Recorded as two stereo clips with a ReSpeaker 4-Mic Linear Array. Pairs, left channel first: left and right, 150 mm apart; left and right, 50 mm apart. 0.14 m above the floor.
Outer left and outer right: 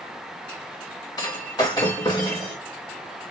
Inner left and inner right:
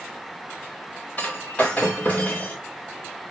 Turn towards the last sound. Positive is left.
turn(degrees=25)  # may be behind; listen again after turning